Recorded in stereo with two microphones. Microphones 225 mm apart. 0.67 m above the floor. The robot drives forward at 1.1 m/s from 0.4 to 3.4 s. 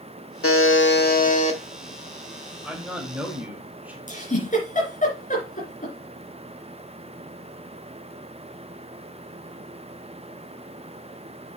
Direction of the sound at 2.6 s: 5° right (ahead or behind).